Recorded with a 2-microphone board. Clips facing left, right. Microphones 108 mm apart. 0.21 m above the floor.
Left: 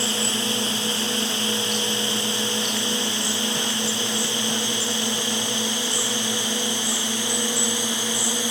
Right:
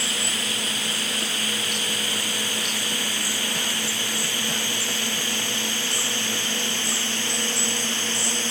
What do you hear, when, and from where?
0.0 s a drone: 30° left (ahead or behind); by 8.5 s 15° left (ahead or behind)